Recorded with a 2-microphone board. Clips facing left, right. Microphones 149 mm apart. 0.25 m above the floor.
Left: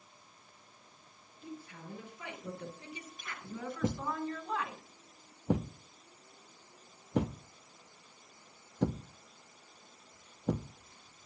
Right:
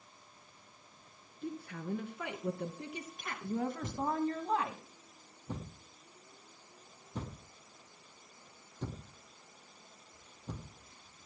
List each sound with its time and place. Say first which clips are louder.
1.4 s a woman speaking: right 6 dB; 65° right (ahead or behind), 4 m; by 4.8 s 30° right (ahead or behind), 1.9 m
3.8 s a thud: right 1 dB; 80° left, 0.8 m